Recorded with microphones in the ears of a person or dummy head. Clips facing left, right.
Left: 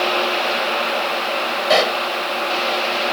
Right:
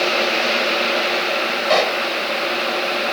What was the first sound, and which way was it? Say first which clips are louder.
A pop: left 1 dB; 10° left (ahead or behind).